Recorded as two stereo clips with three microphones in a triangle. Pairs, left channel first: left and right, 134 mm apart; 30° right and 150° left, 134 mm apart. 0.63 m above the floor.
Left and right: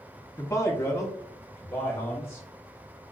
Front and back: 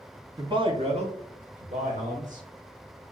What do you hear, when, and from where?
0.4 s a man speaking: 130° left, 0.7 m; by 2.4 s 155° left, 2 m